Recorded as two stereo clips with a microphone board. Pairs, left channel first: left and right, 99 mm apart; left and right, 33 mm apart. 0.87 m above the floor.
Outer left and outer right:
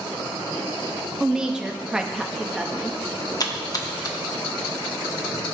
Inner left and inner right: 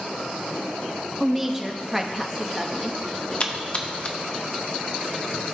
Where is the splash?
40° left (ahead or behind), 0.8 m.